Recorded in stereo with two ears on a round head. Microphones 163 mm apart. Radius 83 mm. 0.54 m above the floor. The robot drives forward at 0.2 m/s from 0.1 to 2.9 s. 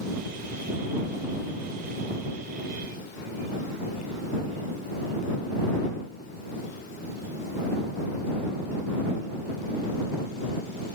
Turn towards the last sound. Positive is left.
No sound to turn to.